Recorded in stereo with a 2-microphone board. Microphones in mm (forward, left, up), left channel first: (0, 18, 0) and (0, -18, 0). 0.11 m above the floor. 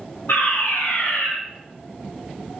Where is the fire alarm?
75° left (ahead or behind), 9.5 m.